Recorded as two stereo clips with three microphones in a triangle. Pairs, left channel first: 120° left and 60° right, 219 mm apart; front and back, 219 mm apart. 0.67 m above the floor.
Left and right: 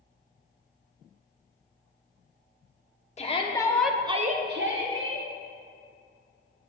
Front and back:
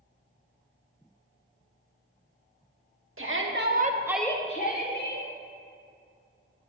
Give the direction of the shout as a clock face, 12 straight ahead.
6 o'clock.